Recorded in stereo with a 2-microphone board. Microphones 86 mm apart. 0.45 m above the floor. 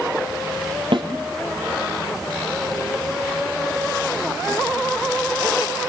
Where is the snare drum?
80° right, 3.5 m.